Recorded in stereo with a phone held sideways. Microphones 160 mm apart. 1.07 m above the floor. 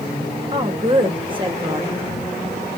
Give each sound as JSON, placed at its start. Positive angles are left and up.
{"t": 0.5, "sound": "a woman speaking", "side_deg": -30, "distance_m": 2.0}